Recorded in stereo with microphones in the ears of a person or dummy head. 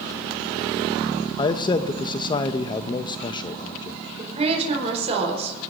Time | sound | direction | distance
1.4 | a man speaking | 25° left (ahead or behind) | 0.7 m
4.2 | a woman speaking | 35° right (ahead or behind) | 4 m